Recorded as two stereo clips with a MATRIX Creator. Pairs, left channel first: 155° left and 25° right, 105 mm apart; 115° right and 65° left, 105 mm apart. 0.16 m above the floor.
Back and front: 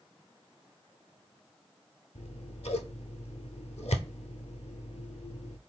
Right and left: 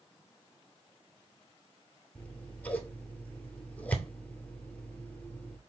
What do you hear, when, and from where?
2.1 s scissors: 170° left, 0.6 m